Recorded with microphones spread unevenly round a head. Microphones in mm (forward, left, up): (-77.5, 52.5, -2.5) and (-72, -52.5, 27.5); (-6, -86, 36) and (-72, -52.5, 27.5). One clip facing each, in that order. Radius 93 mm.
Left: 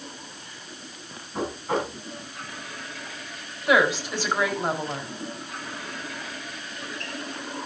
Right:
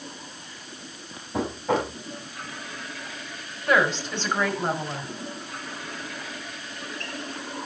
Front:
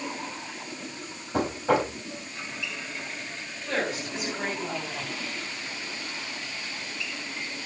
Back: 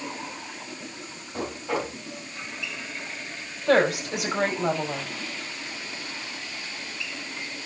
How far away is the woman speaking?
About 5 m.